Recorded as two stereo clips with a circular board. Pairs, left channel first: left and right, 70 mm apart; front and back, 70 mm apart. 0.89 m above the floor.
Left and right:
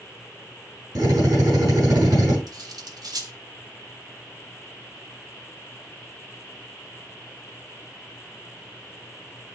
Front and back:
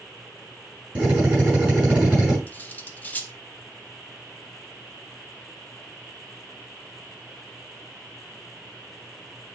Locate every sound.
0.9 s a drill: 110° right, 7 m
2.5 s cutlery clinking: 65° right, 1.0 m